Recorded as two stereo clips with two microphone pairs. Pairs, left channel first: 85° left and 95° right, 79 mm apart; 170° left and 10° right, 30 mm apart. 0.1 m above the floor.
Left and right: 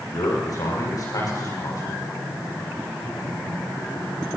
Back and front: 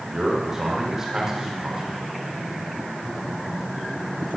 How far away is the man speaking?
About 6 m.